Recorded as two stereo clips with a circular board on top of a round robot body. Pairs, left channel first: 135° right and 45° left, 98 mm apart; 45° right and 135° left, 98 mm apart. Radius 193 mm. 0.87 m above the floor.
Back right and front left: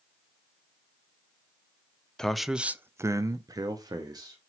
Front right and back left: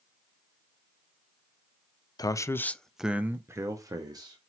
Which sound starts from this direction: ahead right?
A man speaking, at 2.2 s.